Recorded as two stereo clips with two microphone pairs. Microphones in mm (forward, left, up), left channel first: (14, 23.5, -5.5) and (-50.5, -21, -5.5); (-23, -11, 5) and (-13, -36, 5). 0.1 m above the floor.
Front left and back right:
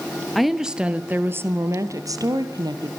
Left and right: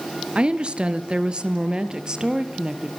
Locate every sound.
0.3 s a woman speaking: 55° right, 2 m; by 2.9 s 130° right, 3.5 m